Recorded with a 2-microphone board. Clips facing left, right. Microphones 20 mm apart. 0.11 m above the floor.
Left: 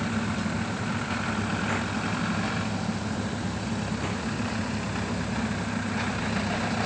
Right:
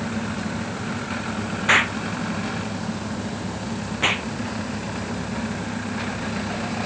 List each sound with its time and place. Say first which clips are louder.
1.7 s an explosion: right 9 dB; 65° right (ahead or behind)